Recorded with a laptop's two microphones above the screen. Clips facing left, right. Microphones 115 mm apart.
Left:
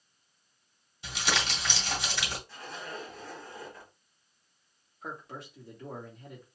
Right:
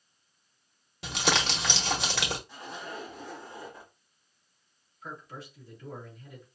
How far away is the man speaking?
About 1.7 m.